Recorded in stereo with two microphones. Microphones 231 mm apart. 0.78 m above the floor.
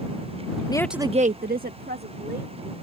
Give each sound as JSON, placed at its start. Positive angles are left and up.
{"t": 0.7, "sound": "a woman speaking", "side_deg": 20}